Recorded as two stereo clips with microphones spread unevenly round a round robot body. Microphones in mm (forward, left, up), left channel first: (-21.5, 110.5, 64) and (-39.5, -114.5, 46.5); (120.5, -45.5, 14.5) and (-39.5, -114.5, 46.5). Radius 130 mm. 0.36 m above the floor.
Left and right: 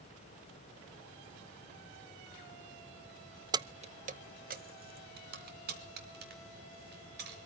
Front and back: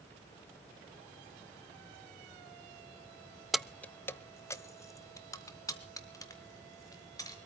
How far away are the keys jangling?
About 0.6 m.